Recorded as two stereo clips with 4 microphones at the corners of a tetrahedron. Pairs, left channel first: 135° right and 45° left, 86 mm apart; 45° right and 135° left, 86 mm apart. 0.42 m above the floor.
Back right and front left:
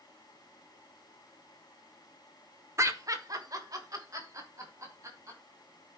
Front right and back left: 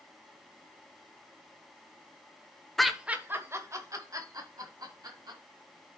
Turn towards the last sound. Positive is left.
turn(degrees=95)